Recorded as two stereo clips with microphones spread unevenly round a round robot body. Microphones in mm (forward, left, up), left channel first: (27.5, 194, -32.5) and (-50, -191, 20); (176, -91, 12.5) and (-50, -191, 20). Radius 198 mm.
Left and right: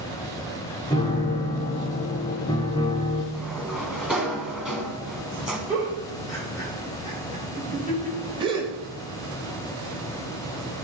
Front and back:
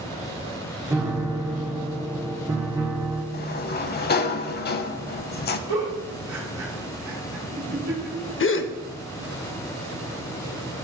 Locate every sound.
0.9 s a piano: 130° left, 0.6 m
3.3 s a sliding door: 20° right, 0.5 m
5.7 s a giggle: 170° left, 2 m
8.4 s a gasp: 25° right, 0.7 m